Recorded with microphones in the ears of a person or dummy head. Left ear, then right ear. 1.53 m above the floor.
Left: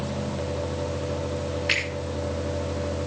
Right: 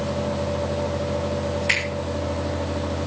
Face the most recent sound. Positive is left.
turn(degrees=-10)  # may be behind; listen again after turning